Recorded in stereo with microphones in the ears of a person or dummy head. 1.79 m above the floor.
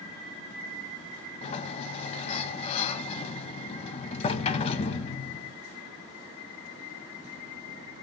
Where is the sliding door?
35° left (ahead or behind), 0.5 m.